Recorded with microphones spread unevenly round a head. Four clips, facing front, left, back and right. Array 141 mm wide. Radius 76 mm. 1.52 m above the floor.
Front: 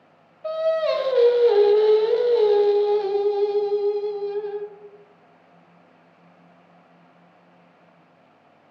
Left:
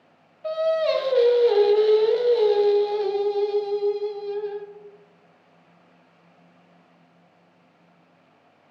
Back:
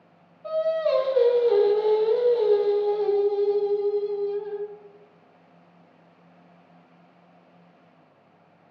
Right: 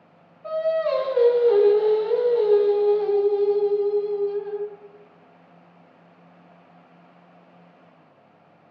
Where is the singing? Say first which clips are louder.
Left 1 dB, front 2 dB; 60° left, 0.5 m.